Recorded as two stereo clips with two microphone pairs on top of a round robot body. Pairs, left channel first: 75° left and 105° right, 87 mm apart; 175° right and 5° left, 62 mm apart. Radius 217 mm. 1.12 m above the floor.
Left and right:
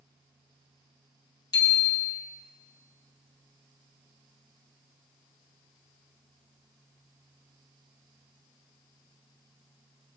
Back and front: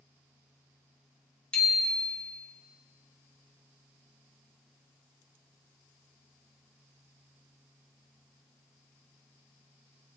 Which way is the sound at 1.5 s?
110° left.